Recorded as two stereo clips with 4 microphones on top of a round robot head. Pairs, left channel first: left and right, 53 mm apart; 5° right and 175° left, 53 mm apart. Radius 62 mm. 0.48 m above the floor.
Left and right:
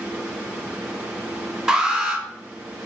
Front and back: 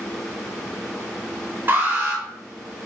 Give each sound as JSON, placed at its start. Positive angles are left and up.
{"t": 1.7, "sound": "an alarm", "azimuth_deg": -165, "distance_m": 2.0}